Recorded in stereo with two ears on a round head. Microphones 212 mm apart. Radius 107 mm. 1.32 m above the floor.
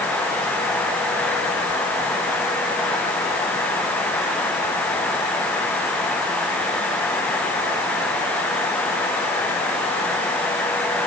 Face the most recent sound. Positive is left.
No sound to turn to.